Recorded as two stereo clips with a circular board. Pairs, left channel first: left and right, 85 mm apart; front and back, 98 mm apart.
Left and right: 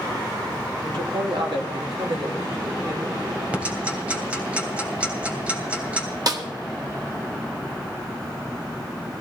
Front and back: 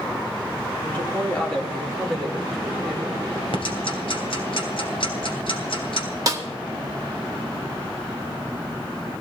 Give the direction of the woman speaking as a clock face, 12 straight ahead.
2 o'clock.